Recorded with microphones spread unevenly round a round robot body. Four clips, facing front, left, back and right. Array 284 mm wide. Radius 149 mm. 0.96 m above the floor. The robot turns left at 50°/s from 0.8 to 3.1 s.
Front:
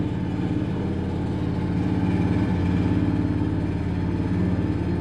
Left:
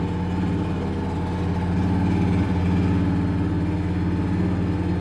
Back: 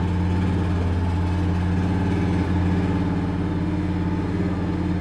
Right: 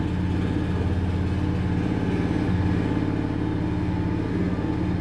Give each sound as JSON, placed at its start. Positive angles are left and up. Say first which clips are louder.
{"t": 0.0, "sound": "an engine running", "louder": "left 1 dB, back 1 dB", "azimuth_deg": 150, "distance_m": 1.2}